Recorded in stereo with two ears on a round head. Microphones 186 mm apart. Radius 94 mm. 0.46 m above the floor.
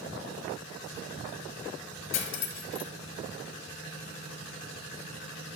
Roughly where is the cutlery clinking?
Left.